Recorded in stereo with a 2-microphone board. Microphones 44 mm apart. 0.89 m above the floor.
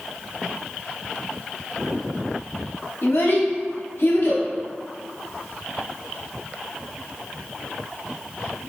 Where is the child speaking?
65° left (ahead or behind), 1.1 m.